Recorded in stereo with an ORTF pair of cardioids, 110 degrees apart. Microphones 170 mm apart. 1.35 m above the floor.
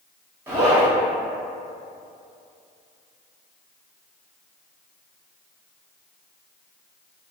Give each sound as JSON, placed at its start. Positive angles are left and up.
{"t": 0.5, "sound": "a zipper", "azimuth_deg": -15, "distance_m": 1.1}